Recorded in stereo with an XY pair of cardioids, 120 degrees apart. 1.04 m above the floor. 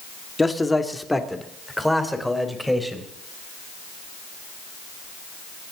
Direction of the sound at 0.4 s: 10° left.